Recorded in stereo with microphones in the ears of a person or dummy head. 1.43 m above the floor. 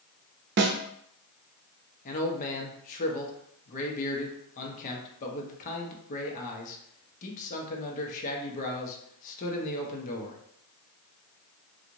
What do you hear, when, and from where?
0.6 s a snare drum: 50° right (ahead or behind), 0.6 m
2.0 s a man speaking: 40° left (ahead or behind), 1.0 m